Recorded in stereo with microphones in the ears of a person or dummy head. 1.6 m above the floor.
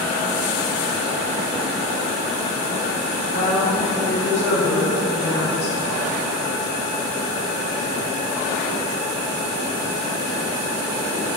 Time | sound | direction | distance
3.3 | a woman speaking | 35° left (ahead or behind) | 1.4 m